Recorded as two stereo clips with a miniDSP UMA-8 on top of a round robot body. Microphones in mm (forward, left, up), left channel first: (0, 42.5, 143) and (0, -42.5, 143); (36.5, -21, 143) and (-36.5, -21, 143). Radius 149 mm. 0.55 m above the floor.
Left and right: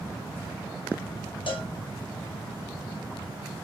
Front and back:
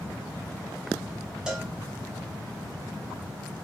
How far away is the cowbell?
About 1.4 m.